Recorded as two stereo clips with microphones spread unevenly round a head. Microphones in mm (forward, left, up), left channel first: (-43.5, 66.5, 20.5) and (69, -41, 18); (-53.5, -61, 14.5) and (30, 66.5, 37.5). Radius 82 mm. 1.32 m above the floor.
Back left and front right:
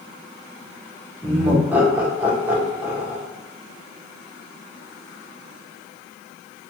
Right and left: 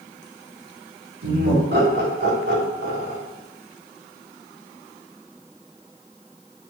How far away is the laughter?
About 1.3 m.